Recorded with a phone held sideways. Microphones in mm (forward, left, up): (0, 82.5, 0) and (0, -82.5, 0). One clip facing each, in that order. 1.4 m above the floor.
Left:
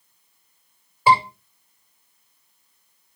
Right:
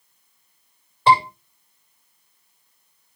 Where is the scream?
5° left (ahead or behind), 7.5 m.